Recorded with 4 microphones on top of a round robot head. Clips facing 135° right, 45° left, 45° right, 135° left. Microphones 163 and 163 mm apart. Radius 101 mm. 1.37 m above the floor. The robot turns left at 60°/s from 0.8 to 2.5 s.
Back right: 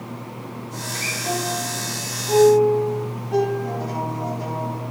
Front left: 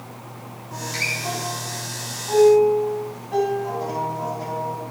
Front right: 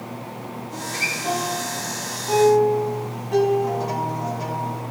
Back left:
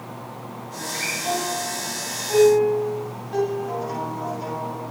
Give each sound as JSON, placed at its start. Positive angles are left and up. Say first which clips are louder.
{"t": 0.7, "sound": "a guitar", "louder": "back right 1 dB, front right 1 dB", "azimuth_deg": 35, "distance_m": 3.5}